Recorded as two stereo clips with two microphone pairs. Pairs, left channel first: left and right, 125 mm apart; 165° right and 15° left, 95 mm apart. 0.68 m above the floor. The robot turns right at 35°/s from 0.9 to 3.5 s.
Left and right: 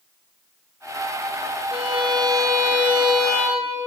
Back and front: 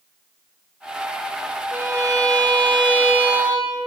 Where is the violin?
50° right, 0.8 m; by 3.8 s 15° left, 0.8 m.